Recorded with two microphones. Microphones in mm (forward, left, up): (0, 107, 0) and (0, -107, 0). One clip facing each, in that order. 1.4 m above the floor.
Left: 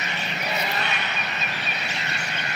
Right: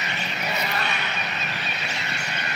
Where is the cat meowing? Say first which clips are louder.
Even; 20° left (ahead or behind), 3.5 m.